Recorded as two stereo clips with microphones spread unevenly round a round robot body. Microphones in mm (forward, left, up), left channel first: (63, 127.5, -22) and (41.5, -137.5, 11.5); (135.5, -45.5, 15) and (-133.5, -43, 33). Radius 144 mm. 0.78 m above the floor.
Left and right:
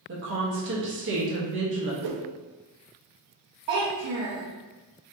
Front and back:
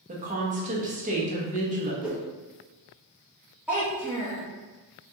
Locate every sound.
0.1 s a woman speaking: 125° right, 0.7 m
2.0 s a whoosh: 95° right, 0.6 m
3.7 s a child speaking: 95° right, 0.7 m